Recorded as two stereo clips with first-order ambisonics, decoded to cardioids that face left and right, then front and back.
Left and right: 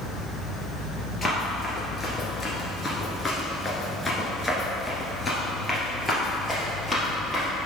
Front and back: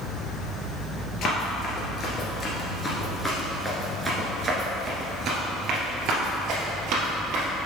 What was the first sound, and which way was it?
Running footsteps, 15° left.